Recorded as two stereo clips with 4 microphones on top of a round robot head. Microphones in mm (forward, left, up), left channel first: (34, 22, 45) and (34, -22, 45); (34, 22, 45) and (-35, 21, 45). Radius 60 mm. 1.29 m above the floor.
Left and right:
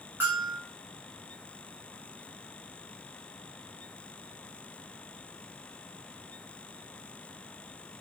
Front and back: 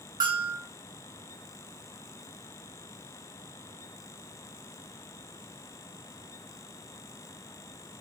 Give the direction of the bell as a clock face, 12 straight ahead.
5 o'clock.